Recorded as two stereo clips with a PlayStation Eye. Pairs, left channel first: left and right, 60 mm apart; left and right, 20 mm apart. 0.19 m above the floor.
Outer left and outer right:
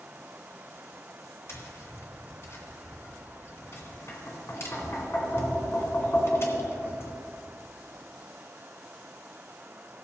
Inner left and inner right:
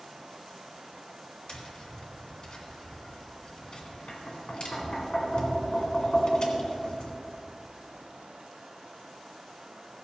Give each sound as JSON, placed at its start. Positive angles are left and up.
{"t": 1.5, "sound": "tapping", "side_deg": 45, "distance_m": 2.0}